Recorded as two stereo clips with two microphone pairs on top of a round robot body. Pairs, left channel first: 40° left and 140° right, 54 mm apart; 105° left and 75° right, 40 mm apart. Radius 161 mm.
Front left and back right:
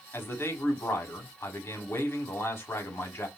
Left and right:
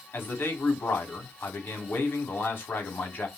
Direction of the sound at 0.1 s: 80° left.